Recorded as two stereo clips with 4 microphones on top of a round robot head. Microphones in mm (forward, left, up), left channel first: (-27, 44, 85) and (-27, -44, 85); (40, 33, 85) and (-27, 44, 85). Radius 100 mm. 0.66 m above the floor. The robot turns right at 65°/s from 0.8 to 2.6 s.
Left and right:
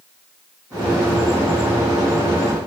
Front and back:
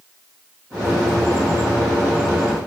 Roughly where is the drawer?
I don't hear a drawer.